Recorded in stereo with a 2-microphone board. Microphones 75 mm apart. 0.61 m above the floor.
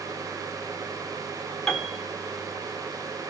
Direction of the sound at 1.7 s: 5° left (ahead or behind).